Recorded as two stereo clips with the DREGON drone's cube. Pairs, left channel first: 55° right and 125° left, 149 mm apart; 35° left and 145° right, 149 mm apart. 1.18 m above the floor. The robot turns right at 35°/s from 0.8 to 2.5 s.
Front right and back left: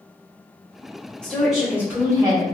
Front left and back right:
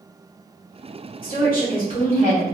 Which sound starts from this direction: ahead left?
A woman speaking, at 1.2 s.